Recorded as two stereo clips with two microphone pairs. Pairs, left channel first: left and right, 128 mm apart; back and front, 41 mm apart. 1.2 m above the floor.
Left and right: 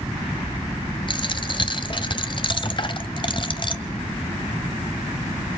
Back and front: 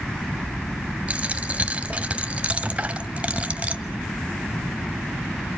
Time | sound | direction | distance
1.1 | a dropped coin | 50° left | 1.5 m